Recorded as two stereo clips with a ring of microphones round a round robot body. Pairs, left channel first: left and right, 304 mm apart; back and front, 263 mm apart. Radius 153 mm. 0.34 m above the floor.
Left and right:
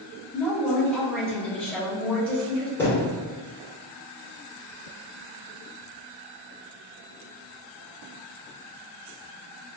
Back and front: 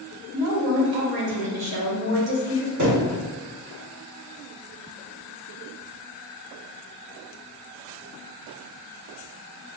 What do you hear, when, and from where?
0.3 s a woman speaking: 5° left, 1.1 m
2.8 s a thud: 5° left, 1.6 m